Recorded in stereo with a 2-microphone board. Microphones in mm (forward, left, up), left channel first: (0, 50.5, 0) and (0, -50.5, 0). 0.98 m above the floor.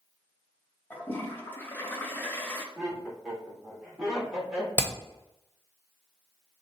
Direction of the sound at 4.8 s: 20° left (ahead or behind).